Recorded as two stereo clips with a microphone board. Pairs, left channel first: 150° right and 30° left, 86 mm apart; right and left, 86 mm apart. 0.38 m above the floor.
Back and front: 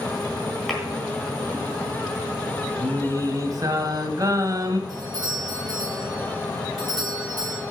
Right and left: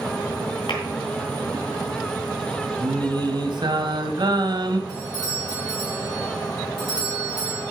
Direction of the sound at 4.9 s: 70° left.